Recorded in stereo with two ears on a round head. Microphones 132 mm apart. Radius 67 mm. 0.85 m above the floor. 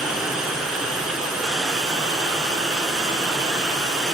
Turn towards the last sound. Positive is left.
turn(degrees=-5)  # may be behind; listen again after turning